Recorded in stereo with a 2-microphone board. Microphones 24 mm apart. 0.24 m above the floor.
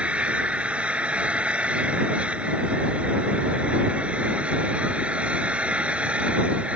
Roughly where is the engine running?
Right.